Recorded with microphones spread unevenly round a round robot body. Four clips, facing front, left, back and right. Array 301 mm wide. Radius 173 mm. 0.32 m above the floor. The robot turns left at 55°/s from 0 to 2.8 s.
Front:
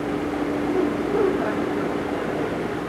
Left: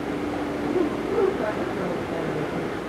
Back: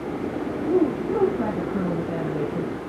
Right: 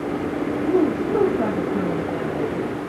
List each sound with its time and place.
0.6 s a woman speaking: 90° right, 8.5 m; by 2.7 s 155° left, 8.5 m